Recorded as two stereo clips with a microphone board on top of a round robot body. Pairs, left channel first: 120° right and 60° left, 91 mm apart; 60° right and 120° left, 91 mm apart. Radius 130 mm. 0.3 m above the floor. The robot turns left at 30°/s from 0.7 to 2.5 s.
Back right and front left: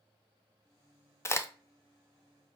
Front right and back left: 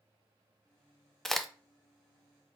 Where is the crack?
145° right, 0.6 m; by 1.5 s 150° right, 0.6 m.